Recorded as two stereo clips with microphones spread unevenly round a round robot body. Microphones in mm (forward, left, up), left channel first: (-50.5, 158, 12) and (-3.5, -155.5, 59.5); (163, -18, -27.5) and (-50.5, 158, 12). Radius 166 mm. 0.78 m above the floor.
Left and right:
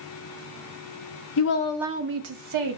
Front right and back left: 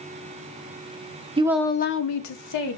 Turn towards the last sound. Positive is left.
turn(degrees=-50)